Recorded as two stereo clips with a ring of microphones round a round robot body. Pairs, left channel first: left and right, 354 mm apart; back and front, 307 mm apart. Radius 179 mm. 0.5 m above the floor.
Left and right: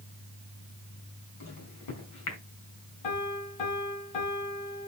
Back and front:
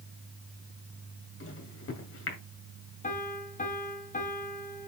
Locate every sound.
1.4 s a microwave: 130° left, 2 m
3.0 s a piano: 115° left, 2.5 m